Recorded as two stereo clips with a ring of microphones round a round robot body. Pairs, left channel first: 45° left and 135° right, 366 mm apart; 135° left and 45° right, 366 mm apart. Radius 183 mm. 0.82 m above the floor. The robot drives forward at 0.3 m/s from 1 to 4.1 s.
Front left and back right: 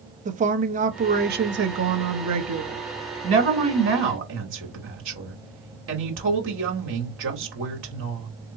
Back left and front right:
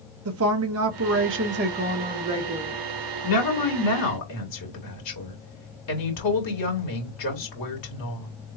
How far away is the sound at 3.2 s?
About 2.5 m.